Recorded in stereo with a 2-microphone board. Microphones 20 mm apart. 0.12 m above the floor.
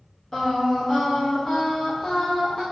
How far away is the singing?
About 2.5 m.